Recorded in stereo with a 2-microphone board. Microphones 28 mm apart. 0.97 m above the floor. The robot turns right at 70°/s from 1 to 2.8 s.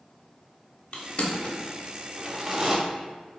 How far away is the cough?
I don't hear a cough.